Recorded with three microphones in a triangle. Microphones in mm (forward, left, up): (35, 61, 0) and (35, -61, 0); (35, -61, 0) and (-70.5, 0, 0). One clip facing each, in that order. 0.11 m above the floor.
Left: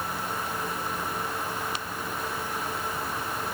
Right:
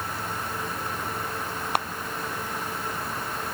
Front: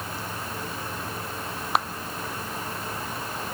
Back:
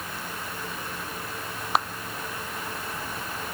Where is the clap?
120° right.